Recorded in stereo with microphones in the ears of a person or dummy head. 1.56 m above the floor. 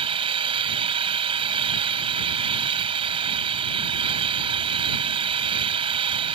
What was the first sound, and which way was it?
An engine running, 30° right (ahead or behind).